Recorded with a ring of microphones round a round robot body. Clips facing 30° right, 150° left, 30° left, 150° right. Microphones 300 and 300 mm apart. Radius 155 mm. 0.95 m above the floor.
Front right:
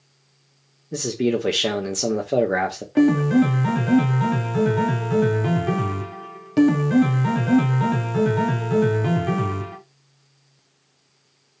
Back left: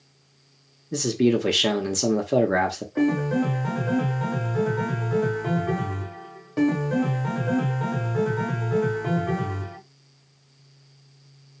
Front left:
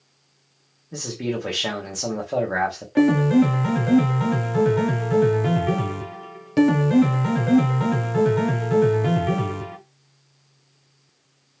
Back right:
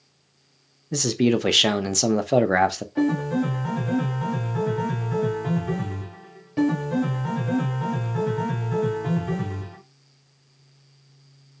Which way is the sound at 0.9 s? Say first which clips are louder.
Back left 1 dB, back right 7 dB; 130° right.